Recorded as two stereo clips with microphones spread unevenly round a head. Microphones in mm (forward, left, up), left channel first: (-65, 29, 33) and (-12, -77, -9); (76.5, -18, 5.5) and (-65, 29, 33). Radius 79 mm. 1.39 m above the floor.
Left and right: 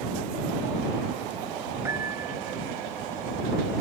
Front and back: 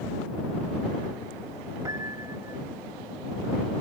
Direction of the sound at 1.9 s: 140° right.